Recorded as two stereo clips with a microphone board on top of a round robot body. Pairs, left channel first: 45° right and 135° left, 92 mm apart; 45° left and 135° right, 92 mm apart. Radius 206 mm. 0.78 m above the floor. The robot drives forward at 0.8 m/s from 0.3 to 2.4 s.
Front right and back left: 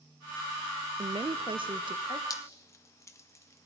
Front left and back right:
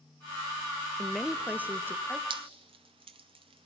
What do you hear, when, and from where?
1.0 s a woman speaking: 125° left, 0.8 m; by 2.2 s 165° left, 1.5 m
2.3 s dripping: 100° right, 0.7 m; by 3.7 s 105° right, 0.7 m